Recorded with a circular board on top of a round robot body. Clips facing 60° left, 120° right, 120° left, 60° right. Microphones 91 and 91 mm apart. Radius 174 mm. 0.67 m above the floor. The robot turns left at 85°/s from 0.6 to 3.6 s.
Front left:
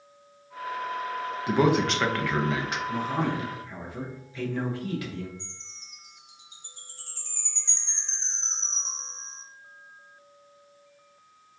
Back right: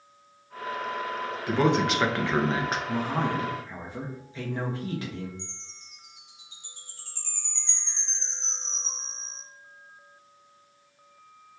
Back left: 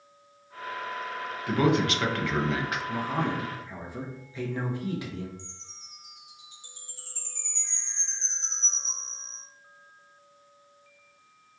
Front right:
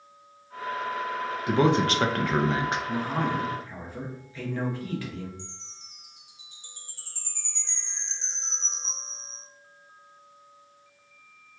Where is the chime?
100° right, 1.2 m.